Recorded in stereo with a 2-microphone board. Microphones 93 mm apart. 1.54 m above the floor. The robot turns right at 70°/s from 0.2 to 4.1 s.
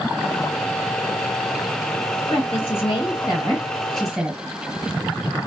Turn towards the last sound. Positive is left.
turn(degrees=-175)